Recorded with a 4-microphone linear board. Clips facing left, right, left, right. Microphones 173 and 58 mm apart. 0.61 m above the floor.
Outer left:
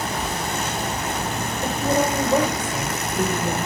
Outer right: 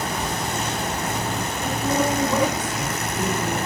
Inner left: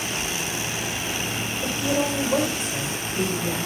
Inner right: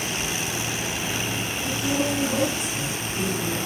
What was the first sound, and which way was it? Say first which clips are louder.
A woman speaking: outer left 1 dB, inner left 1 dB; 45° left (ahead or behind).